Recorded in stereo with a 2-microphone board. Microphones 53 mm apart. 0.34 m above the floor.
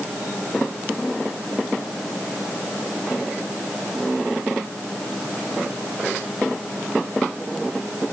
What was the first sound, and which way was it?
Only background noise.